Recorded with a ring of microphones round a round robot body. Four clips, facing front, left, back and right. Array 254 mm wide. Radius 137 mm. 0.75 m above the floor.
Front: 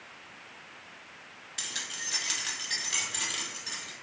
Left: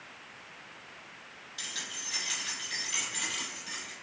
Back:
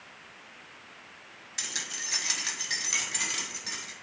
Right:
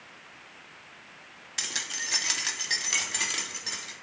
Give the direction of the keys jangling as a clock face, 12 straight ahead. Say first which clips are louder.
Right 6 dB, back 1 dB; 3 o'clock.